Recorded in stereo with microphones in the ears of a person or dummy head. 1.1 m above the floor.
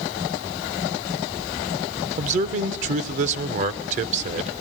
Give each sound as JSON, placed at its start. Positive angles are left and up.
{"t": 2.2, "sound": "a man speaking", "side_deg": -45, "distance_m": 0.8}